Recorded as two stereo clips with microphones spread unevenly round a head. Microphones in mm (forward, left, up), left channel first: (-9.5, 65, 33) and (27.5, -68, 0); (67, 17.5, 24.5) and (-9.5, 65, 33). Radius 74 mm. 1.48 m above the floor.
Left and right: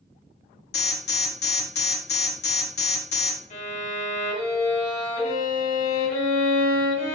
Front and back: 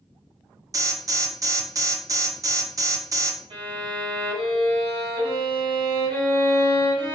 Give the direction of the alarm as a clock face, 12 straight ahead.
9 o'clock.